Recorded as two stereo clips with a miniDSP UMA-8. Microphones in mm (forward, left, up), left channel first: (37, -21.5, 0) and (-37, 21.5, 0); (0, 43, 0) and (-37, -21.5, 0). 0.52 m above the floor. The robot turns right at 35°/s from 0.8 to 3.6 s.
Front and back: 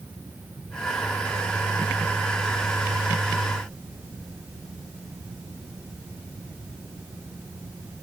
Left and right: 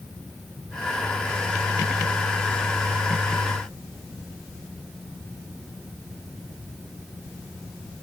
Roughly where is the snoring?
I don't hear snoring.